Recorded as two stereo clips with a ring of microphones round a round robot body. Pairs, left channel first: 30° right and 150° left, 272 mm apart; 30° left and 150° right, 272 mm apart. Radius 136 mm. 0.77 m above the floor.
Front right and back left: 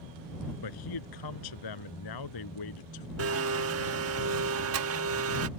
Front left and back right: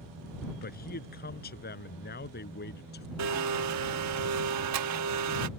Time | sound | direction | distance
0.6 | a man speaking | 30° right | ?
3.2 | a blender | 175° right | ?